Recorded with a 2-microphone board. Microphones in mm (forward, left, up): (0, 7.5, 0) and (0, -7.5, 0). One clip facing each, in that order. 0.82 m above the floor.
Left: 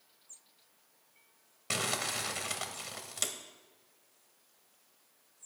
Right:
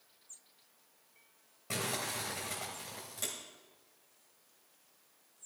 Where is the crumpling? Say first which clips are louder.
Left 3 dB; 55° left (ahead or behind), 1.3 m.